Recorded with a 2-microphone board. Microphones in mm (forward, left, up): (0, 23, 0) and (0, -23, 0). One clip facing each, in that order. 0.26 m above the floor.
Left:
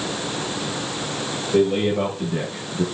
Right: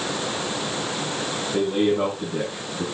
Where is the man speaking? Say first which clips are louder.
Left 3 dB; 50° left (ahead or behind), 7 m; by 2.8 s 60° left (ahead or behind), 7 m.